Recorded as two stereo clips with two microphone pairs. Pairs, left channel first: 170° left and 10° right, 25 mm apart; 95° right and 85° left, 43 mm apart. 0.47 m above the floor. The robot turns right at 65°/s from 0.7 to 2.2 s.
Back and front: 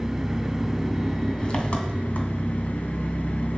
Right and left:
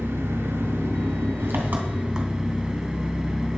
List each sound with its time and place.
0.0 s an engine running: 65° left, 2 m; by 3.6 s 160° left, 2 m